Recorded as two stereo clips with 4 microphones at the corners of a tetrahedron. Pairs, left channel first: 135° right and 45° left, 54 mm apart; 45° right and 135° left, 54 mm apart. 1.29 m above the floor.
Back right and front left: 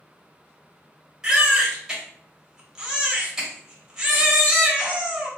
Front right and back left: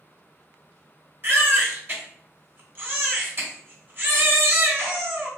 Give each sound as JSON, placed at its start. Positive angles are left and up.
{"t": 1.2, "sound": "a baby crying", "azimuth_deg": 120, "distance_m": 1.0}